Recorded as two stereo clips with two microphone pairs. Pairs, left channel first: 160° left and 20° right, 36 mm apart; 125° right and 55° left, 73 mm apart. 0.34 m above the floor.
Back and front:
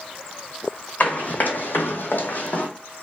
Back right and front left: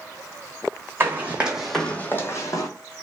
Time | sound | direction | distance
1.0 | running footsteps | 115° left | 0.9 m